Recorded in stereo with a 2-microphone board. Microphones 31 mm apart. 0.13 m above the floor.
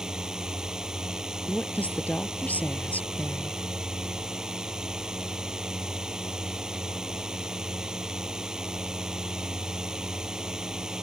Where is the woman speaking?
65° left (ahead or behind).